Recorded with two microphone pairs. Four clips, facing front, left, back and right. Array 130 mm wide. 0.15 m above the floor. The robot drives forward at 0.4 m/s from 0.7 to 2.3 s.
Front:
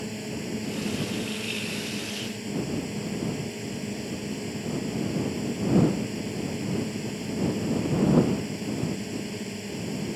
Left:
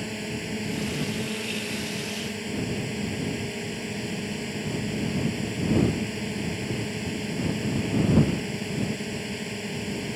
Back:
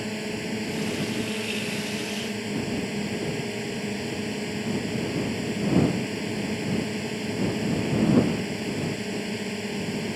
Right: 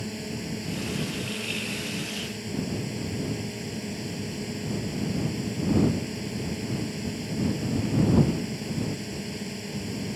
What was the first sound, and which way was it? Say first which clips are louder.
A drone: left 1 dB, back 3 dB; 155° left.